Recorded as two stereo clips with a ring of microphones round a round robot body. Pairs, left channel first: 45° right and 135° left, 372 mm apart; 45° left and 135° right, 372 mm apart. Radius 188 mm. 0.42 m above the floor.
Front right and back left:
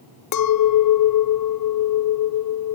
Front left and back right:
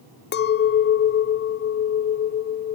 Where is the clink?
10° right, 0.5 m.